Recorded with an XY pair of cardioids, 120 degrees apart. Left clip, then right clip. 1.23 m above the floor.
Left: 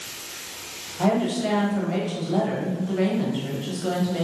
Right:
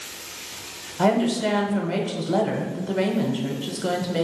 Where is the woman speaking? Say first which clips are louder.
Right 2 dB; 35° right, 0.8 m.